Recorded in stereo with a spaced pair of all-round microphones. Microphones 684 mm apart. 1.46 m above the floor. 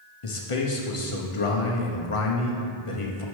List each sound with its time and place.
0.2 s a man speaking: 50° left (ahead or behind), 1.0 m